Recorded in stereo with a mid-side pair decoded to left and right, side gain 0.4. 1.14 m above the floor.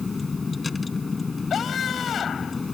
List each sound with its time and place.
0.0 s a vehicle: 30° left
1.5 s a scream: 60° left